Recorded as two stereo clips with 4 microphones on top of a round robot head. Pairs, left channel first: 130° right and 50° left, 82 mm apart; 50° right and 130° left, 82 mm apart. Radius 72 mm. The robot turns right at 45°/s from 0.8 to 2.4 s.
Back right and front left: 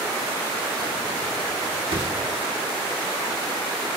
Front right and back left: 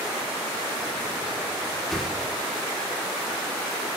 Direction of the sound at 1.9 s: 35° left.